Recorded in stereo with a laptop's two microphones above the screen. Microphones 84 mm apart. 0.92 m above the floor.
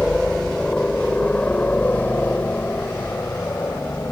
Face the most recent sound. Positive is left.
turn(degrees=30)  # may be behind; listen again after turning